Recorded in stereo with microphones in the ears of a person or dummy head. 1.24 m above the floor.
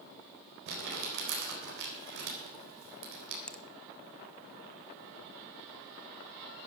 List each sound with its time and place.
0.7 s crumpling: 70° right (ahead or behind), 4 m
3.5 s a finger snap: 5° left (ahead or behind), 0.5 m